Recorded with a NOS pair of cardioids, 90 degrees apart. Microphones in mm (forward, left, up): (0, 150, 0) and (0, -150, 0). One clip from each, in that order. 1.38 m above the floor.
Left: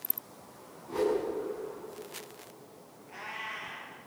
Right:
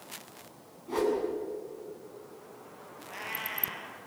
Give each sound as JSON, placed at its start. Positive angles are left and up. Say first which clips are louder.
{"t": 0.9, "sound": "a whoosh", "louder": "even", "azimuth_deg": -45, "distance_m": 7.5}
{"t": 3.1, "sound": "a cat meowing", "louder": "right 2 dB", "azimuth_deg": -40, "distance_m": 7.5}